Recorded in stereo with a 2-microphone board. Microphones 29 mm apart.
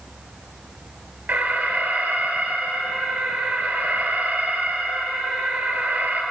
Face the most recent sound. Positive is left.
turn(degrees=-60)  # may be behind; listen again after turning